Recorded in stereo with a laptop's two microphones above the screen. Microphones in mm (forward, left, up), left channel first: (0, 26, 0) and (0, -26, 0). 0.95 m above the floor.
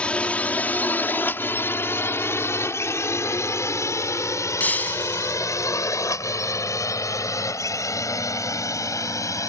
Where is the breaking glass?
30° left (ahead or behind).